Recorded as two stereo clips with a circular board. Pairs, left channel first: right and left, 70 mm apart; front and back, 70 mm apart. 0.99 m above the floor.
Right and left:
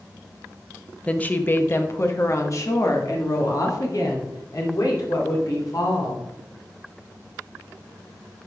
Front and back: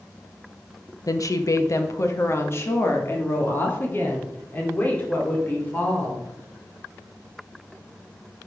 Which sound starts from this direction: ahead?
A woman speaking, at 1.1 s.